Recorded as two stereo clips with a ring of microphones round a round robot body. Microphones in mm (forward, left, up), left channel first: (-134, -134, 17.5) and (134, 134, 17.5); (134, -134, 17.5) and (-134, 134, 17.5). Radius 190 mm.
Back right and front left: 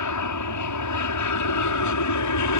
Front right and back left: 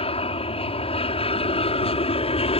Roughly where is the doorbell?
No doorbell in this recording.